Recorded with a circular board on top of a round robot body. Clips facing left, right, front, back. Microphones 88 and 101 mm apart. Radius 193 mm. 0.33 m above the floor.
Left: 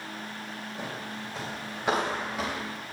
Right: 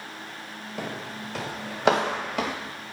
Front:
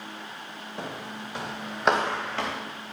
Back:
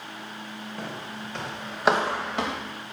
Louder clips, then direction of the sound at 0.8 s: Right 5 dB, front 2 dB; 70° right.